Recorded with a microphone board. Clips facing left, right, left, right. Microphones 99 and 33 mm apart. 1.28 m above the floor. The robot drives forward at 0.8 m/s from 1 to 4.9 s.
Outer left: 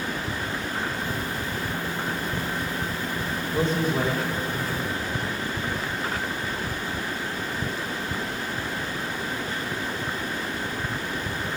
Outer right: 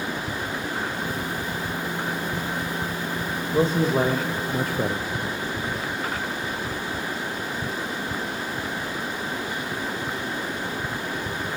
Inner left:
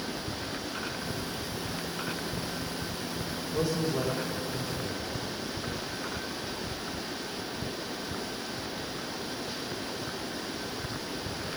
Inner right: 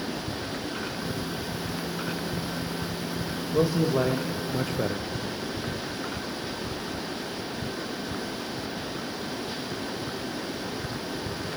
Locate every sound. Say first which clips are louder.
3.5 s a man speaking: outer right 4 dB, inner right 6 dB; 25° right (ahead or behind), 1.5 m; by 5.0 s 75° right (ahead or behind), 0.7 m